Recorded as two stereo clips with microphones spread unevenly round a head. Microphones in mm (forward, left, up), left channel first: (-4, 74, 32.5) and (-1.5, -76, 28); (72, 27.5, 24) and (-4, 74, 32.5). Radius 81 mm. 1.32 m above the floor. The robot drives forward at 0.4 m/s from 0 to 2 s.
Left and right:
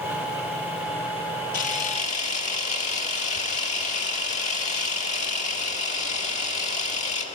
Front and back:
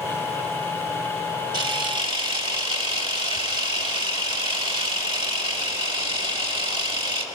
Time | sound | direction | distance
1.5 | a camera shutter | 125° left | 1.4 m